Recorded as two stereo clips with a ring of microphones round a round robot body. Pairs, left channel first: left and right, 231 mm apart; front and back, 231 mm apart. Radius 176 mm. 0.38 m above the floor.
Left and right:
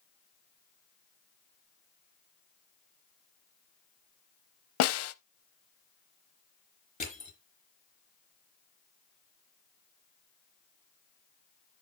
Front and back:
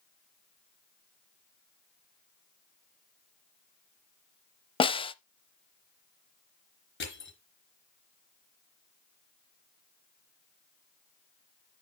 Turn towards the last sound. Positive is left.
turn(degrees=30)